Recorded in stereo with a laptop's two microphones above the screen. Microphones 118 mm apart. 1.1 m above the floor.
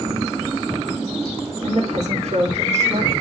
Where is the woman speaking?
75° right (ahead or behind), 2 m.